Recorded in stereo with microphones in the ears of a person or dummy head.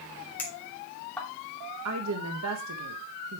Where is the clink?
10° left (ahead or behind), 2.5 m.